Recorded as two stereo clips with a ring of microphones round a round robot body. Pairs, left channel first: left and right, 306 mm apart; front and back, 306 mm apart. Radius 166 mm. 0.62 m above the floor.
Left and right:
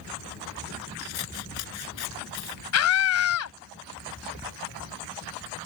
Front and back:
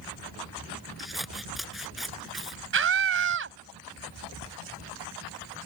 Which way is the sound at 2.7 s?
130° left.